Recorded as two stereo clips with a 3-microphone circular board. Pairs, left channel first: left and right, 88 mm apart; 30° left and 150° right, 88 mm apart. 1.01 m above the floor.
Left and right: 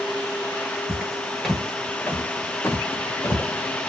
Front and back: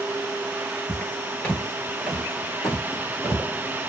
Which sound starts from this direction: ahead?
Footsteps, at 0.9 s.